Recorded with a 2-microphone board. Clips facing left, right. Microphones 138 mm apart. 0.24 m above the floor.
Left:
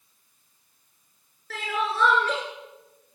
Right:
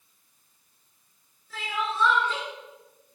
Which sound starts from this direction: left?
Crying, at 1.5 s.